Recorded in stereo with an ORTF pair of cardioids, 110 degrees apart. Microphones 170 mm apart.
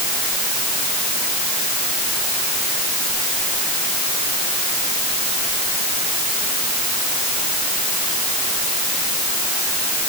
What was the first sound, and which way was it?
Only background noise.